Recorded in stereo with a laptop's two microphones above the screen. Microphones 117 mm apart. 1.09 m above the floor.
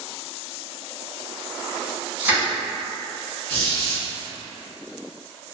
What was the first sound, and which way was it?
Crushing, 15° right (ahead or behind).